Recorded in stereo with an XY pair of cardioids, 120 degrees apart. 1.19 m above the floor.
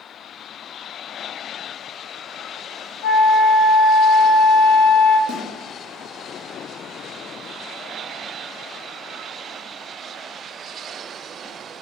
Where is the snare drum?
65° left, 1.2 m.